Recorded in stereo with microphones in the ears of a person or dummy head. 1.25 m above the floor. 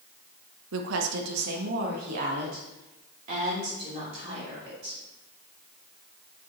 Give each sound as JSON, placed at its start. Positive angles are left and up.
{"t": 0.7, "sound": "a woman speaking", "side_deg": -85, "distance_m": 0.8}